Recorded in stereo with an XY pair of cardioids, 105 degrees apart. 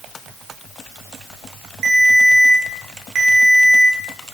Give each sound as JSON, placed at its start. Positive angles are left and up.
{"t": 1.8, "sound": "a ringtone", "azimuth_deg": -60, "distance_m": 1.6}